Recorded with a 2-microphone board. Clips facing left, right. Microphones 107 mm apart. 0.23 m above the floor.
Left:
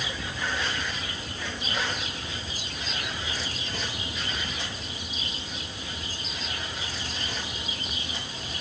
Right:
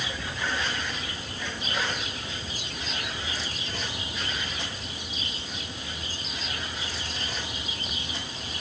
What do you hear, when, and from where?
Only background noise.